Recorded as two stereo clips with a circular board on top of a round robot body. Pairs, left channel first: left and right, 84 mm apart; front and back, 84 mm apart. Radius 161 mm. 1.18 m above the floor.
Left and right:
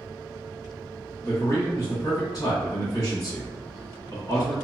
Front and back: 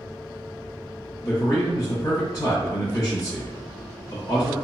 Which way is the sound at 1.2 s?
40° left.